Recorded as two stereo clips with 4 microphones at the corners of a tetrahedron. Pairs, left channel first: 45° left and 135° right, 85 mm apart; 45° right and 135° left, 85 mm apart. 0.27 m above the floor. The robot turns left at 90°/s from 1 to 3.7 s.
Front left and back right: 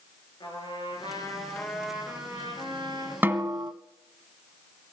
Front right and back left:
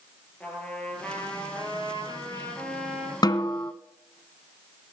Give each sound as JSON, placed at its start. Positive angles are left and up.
{"t": 0.4, "sound": "a trumpet", "azimuth_deg": 30, "distance_m": 6.0}
{"t": 3.2, "sound": "a snare drum", "azimuth_deg": -70, "distance_m": 1.0}